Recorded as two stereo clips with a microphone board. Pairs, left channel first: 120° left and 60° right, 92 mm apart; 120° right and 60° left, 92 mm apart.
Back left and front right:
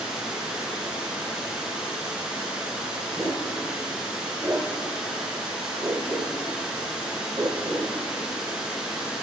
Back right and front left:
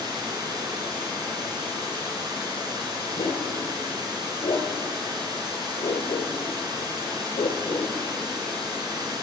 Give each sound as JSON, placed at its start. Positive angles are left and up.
{"t": 0.0, "sound": "running water", "azimuth_deg": 20, "distance_m": 2.5}
{"t": 3.2, "sound": "a dog barking", "azimuth_deg": -120, "distance_m": 1.4}